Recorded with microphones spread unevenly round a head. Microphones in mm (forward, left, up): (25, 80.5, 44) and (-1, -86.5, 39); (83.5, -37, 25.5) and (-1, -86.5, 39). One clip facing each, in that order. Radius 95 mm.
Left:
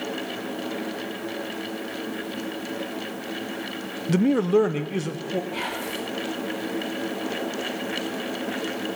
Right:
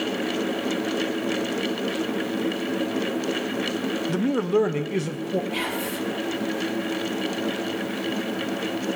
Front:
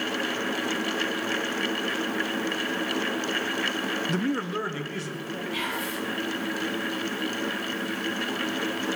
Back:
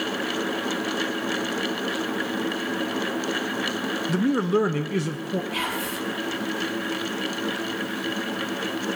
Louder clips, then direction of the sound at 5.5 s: Right 3 dB, back 2 dB; 160° right.